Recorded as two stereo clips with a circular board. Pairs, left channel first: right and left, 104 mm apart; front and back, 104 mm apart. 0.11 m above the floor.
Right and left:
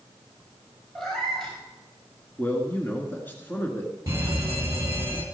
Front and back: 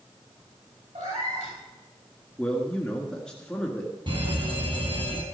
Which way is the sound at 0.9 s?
175° right.